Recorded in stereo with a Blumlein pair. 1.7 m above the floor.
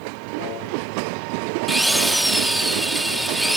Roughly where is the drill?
Ahead.